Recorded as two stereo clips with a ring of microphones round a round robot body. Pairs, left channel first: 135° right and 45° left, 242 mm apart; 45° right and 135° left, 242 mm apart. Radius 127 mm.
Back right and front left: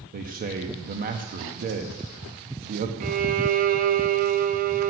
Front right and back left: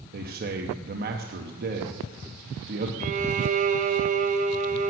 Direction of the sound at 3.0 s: 85° left.